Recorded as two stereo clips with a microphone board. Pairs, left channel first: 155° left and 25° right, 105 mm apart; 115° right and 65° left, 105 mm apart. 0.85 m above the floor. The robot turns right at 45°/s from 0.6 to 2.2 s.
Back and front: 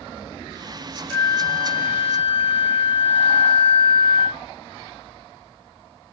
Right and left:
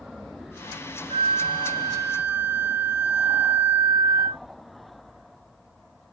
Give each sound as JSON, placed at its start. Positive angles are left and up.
{"t": 1.1, "sound": "a flute", "azimuth_deg": 90, "distance_m": 0.7}